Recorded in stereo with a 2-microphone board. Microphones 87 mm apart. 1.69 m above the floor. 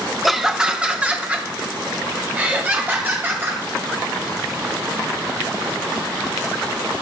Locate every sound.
0.2 s laughter: centre (ahead or behind), 1.0 m; by 3.6 s 25° right (ahead or behind), 4.5 m